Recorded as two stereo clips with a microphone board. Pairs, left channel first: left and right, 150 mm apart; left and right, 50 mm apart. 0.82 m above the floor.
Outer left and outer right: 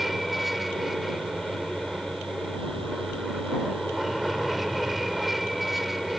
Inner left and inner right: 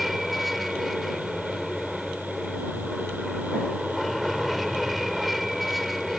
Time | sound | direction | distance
0.0 | an aircraft | centre (ahead or behind) | ?